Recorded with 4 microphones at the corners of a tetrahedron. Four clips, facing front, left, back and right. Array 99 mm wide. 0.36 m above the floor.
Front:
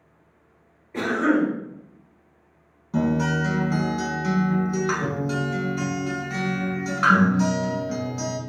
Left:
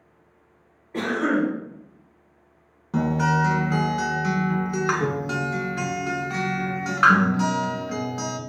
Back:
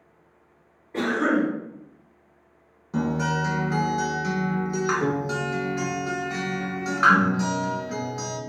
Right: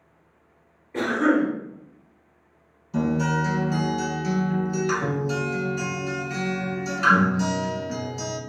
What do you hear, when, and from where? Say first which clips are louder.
0.9 s a cough: right 2 dB, front 1 dB; 145° left, 1.2 m
2.9 s a guitar: left 2 dB, front 2 dB; 95° left, 0.6 m